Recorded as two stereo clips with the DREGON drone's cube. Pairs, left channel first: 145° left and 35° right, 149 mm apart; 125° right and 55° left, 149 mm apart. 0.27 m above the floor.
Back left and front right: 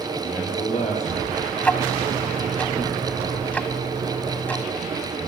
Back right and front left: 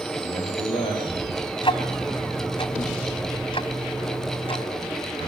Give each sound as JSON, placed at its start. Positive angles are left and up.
{"t": 0.2, "sound": "a man speaking", "azimuth_deg": 180, "distance_m": 7.5}
{"t": 1.6, "sound": "ticking", "azimuth_deg": -140, "distance_m": 1.5}